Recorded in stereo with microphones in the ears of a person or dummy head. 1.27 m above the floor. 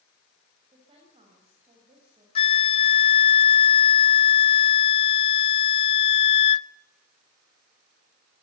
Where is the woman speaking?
30° right (ahead or behind), 5.5 m.